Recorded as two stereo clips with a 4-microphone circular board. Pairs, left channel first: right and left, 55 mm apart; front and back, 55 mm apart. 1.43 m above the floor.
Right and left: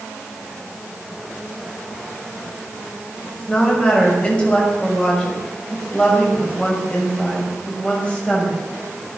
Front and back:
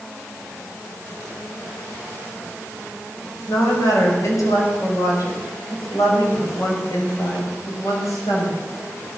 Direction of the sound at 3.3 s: 20° right.